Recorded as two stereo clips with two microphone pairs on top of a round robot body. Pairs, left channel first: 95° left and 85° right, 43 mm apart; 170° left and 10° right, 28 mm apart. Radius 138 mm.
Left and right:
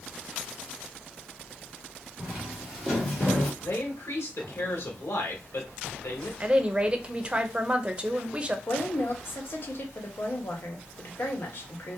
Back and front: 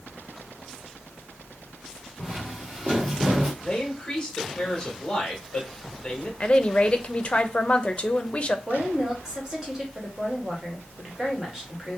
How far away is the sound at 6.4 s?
About 0.5 m.